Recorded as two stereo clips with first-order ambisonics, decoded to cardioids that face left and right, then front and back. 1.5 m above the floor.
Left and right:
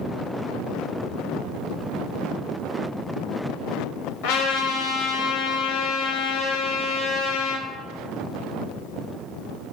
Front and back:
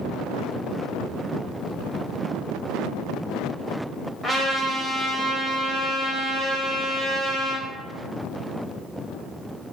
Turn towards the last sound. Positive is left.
turn(degrees=85)